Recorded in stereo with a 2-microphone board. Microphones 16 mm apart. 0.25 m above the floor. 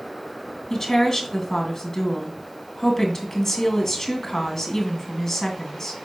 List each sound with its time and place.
0.7 s a woman speaking: 25° left (ahead or behind), 2 m